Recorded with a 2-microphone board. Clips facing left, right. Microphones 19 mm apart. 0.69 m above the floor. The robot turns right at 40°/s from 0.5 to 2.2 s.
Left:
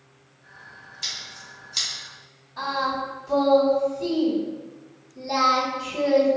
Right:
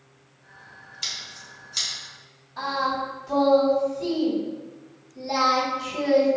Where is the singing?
15° right (ahead or behind), 1.6 m.